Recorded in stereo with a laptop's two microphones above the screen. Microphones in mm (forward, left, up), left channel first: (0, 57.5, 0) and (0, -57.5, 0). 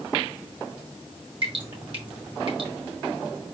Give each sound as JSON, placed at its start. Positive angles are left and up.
{"t": 1.4, "sound": "dripping", "side_deg": -50, "distance_m": 1.3}